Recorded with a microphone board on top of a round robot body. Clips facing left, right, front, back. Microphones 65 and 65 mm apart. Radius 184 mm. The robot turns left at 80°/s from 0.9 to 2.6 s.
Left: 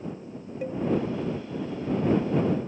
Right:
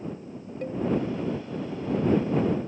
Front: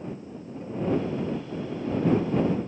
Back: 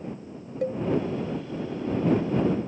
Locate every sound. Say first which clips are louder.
0.6 s a cowbell: even, back 6 dB; 175° left